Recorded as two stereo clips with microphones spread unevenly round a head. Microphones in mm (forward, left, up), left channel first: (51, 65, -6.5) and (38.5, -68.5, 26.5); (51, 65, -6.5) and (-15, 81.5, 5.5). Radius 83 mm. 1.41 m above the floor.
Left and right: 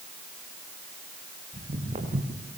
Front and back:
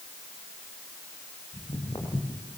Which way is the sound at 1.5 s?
65° right.